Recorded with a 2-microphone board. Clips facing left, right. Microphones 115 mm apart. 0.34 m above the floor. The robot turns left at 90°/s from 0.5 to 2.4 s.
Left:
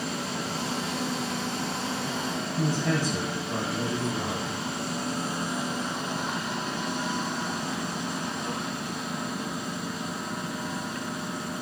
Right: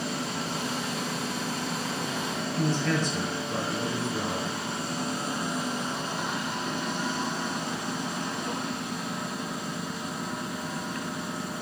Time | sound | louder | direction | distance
2.6 | a man speaking | even | 10° left (ahead or behind) | 1.6 m